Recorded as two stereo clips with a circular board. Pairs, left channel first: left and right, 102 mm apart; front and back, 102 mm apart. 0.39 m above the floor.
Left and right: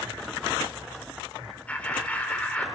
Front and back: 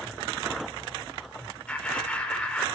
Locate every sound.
1.7 s laughter: 50° left, 1.3 m